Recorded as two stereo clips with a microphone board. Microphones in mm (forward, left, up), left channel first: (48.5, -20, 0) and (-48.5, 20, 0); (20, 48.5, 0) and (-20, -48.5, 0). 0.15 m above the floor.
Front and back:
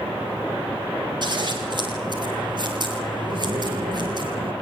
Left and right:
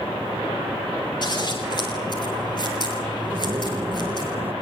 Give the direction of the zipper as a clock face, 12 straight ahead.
6 o'clock.